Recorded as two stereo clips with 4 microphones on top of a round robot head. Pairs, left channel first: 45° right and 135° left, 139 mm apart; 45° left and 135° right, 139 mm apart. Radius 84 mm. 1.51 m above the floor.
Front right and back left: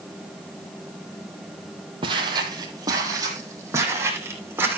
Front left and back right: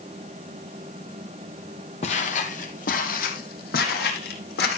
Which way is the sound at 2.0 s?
85° left.